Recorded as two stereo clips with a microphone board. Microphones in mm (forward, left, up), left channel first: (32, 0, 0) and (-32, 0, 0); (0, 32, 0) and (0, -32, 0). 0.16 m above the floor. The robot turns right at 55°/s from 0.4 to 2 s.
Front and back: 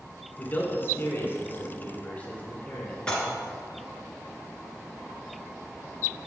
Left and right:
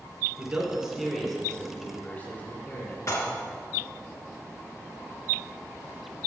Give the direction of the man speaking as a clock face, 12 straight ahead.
1 o'clock.